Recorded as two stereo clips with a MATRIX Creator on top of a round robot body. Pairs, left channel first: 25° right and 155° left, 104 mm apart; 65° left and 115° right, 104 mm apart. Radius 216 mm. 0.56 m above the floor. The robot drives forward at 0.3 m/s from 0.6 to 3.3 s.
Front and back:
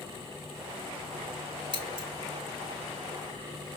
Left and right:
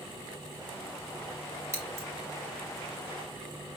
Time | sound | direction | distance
1.7 | scissors | 170° right | 2 m